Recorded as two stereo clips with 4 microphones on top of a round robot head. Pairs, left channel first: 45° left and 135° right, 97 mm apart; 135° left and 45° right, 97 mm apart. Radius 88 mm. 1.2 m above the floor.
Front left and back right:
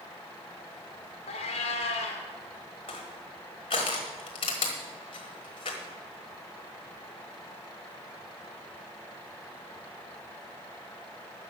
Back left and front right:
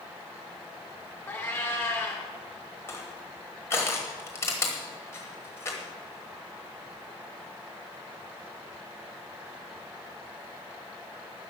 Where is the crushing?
75° left, 1.2 m.